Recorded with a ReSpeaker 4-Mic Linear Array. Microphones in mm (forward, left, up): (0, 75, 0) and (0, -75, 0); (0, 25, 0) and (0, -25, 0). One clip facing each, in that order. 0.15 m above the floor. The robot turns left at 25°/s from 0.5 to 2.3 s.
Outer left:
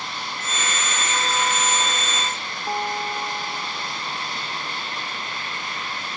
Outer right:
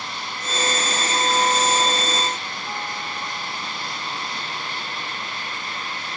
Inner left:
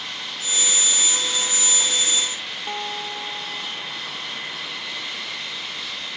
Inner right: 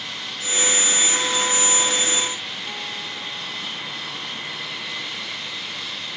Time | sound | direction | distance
2.7 | a guitar | 45° left (ahead or behind) | ?